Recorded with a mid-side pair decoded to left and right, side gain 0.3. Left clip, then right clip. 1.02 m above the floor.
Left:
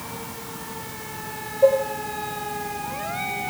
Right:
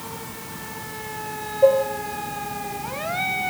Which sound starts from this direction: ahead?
Dishes clattering, at 1.6 s.